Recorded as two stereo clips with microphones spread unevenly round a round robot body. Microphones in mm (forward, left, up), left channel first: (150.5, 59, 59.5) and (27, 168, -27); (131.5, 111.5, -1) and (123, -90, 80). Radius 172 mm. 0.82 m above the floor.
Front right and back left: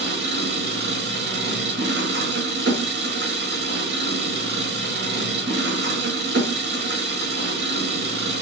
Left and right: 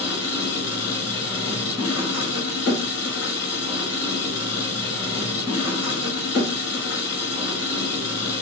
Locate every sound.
0.0 s an engine running: 130° left, 4.5 m